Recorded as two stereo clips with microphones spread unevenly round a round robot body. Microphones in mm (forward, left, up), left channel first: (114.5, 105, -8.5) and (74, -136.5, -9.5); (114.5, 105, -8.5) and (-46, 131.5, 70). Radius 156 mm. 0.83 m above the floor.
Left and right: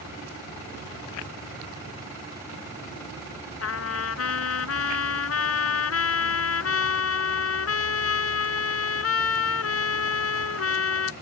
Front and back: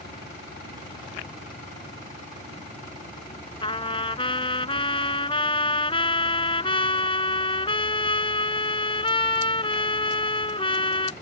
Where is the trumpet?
60° left.